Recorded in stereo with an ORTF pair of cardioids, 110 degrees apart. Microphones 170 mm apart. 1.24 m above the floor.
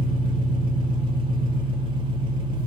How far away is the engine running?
About 0.7 m.